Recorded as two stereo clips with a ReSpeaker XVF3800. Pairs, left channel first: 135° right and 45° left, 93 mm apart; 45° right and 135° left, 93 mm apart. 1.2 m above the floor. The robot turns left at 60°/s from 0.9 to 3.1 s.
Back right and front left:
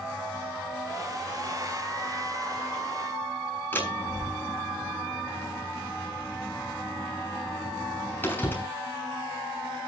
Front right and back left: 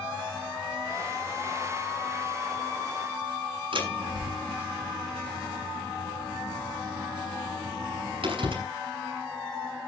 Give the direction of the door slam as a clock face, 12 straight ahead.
7 o'clock.